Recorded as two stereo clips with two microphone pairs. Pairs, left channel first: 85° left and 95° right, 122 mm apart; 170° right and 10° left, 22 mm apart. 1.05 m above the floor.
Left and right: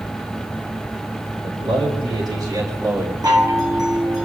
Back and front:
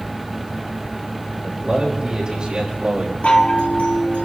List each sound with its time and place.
1.4 s a man speaking: 55° right, 4.5 m; by 3.1 s 25° right, 4.5 m
3.2 s a chime: 155° right, 2 m